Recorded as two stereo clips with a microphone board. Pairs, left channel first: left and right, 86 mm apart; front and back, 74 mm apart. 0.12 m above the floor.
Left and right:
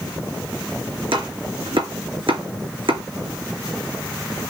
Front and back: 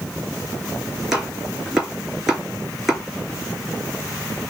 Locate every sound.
1.1 s chopping: 95° right, 3 m